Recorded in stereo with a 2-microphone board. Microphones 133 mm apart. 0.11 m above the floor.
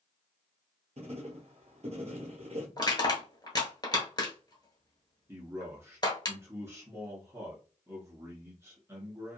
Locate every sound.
1.0 s writing: 55° right (ahead or behind), 1.0 m
2.8 s crushing: 35° left (ahead or behind), 1.1 m
5.3 s a man speaking: 20° right (ahead or behind), 1.1 m